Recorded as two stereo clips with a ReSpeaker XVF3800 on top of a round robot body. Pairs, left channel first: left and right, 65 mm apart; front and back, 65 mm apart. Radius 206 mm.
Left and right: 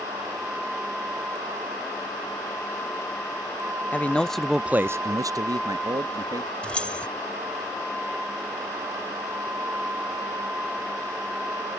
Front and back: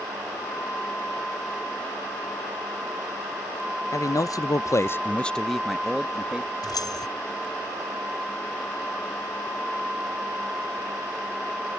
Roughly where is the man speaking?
Ahead left.